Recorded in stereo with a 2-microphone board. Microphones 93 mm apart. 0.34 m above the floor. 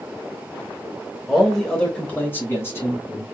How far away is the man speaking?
About 0.9 m.